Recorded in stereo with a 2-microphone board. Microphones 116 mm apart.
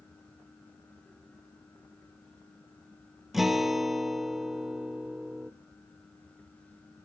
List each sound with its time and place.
3.3 s a guitar: centre (ahead or behind), 1.0 m